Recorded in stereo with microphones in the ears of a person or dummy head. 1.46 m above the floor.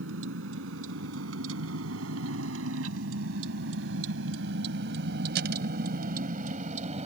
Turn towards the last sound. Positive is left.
turn(degrees=-35)  # may be behind; listen again after turning